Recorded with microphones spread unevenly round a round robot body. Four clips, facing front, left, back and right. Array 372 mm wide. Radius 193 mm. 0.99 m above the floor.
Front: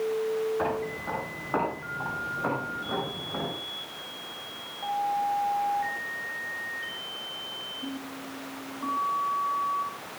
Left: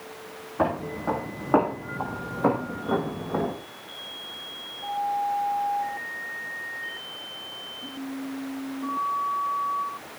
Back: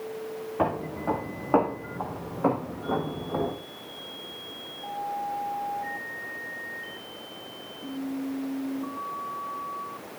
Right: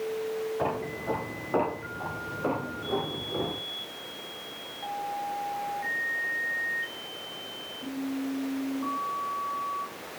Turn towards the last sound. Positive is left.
turn(degrees=105)